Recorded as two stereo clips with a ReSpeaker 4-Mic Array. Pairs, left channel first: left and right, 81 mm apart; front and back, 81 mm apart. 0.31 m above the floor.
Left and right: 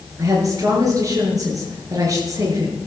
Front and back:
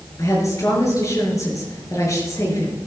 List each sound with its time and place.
0.2 s a woman speaking: 45° right, 5 m